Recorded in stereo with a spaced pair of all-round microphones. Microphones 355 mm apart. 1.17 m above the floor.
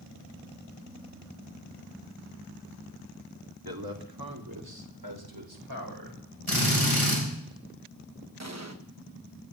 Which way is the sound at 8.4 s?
45° right (ahead or behind).